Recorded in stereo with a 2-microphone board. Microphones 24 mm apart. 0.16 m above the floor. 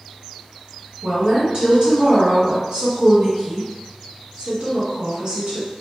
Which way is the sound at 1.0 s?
40° right (ahead or behind).